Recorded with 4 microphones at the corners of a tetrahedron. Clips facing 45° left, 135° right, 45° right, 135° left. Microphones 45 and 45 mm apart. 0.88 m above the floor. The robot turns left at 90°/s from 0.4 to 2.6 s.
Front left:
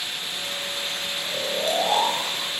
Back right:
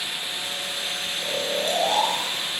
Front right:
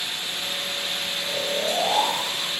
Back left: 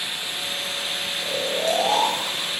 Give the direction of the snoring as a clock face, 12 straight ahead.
6 o'clock.